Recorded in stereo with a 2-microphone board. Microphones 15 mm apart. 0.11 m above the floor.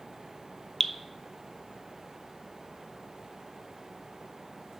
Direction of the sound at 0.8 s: 30° left (ahead or behind).